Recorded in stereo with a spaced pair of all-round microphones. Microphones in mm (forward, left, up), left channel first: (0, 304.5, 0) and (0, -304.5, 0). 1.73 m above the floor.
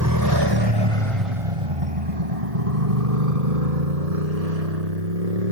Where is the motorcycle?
30° right (ahead or behind); by 5.5 s 85° right.